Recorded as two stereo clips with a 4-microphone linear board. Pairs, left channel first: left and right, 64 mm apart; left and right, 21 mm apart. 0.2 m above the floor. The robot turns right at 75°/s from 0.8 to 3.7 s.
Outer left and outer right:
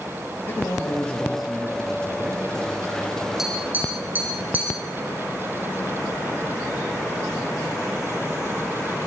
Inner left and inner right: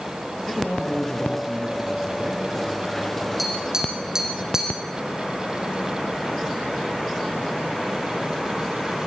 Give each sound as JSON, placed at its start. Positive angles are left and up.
{"t": 0.5, "sound": "a man speaking", "azimuth_deg": 135, "distance_m": 4.0}
{"t": 3.4, "sound": "tapping", "side_deg": -5, "distance_m": 7.5}